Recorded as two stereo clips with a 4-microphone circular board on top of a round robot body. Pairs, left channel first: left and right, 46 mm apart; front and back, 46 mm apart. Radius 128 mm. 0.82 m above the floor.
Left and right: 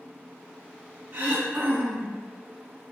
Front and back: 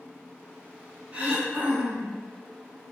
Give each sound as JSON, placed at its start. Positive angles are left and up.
{"t": 1.1, "sound": "throat clearing", "azimuth_deg": -125, "distance_m": 1.0}